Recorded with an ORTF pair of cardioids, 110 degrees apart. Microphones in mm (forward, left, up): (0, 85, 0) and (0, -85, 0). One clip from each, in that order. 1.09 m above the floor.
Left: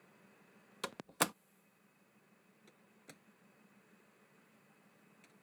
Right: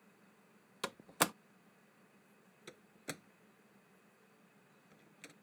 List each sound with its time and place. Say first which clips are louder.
0.8 s a door slam: right 1 dB; 5° right
2.7 s a door slam: right 13 dB; 65° right